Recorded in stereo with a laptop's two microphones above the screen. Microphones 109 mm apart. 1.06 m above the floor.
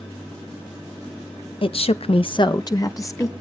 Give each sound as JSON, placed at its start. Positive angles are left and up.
{"t": 1.6, "sound": "a woman speaking", "side_deg": 50, "distance_m": 0.6}